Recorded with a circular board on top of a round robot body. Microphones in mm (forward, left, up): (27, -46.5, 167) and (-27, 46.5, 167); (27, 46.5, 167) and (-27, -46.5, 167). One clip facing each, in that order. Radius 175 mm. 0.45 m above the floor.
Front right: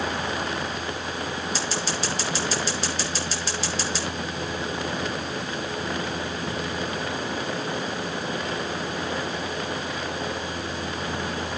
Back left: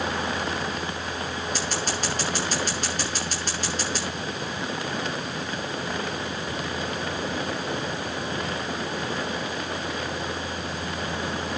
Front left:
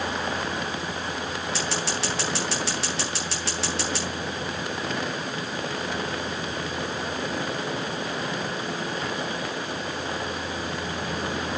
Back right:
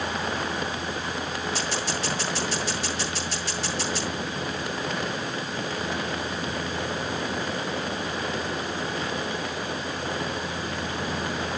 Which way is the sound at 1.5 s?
80° left.